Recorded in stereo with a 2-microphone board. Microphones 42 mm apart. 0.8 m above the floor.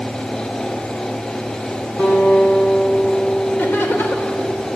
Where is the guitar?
75° left (ahead or behind), 6.5 m.